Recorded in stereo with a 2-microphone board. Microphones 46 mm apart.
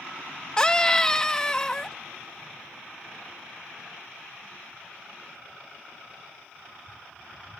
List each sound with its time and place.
0.6 s a scream: 20° left (ahead or behind)